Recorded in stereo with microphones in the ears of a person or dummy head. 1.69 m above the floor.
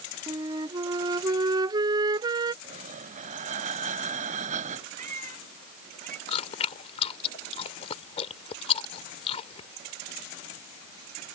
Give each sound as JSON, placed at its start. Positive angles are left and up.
{"t": 0.3, "sound": "a flute", "side_deg": -25}
{"t": 2.6, "sound": "breathing", "side_deg": -45}
{"t": 5.0, "sound": "a cat meowing", "side_deg": -40}
{"t": 6.3, "sound": "chewing", "side_deg": 35}